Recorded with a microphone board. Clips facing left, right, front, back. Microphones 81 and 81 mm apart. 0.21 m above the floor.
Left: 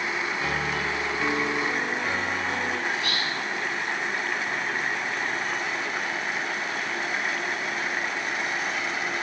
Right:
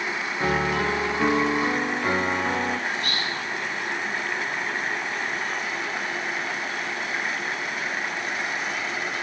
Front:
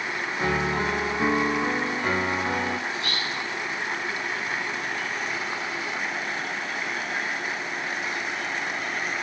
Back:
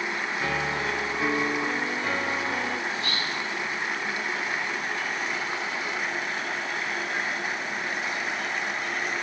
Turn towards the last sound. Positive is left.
turn(degrees=-120)